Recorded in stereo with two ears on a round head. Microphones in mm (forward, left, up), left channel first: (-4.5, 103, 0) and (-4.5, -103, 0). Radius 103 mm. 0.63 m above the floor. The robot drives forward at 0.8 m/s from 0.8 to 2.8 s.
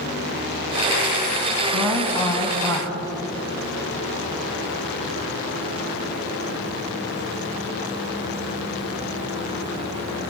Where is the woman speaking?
10° left (ahead or behind), 4.5 m; by 2.9 s 15° left (ahead or behind), 3.5 m.